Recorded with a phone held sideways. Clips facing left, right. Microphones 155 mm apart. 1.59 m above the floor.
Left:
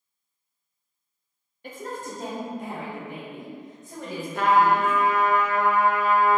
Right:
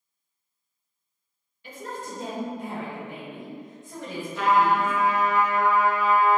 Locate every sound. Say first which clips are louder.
1.6 s a woman speaking: left 2 dB; 50° left (ahead or behind), 0.9 m; by 4.9 s 40° left (ahead or behind), 3 m
4.3 s a trumpet: left 1 dB; 55° left (ahead or behind), 0.5 m